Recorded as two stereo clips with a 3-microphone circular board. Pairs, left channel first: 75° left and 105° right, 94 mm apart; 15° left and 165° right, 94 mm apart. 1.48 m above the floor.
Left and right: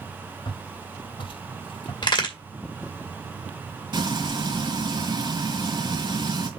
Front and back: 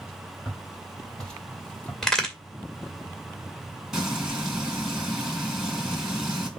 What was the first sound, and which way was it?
Footsteps, 100° left.